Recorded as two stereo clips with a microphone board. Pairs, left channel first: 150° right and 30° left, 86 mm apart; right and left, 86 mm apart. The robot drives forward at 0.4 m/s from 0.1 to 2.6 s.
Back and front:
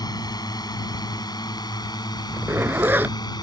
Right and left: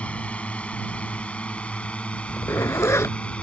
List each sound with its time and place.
0.0 s a drone: 160° right; by 3.4 s 165° right
2.3 s a zipper: 30° right; by 3.2 s 35° right